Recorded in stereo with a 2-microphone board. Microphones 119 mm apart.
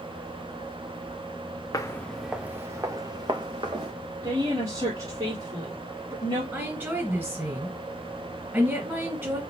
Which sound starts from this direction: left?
Footsteps, at 1.7 s.